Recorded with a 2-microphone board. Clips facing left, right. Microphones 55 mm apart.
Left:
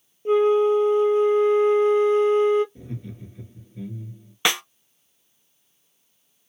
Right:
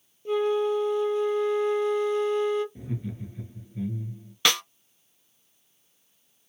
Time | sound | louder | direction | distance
0.2 | a flute | left 7 dB | 35° left (ahead or behind) | 0.5 m
2.8 | laughter | right 2 dB | 10° right (ahead or behind) | 1.9 m
4.5 | a snare drum | left 1 dB | 20° left (ahead or behind) | 0.5 m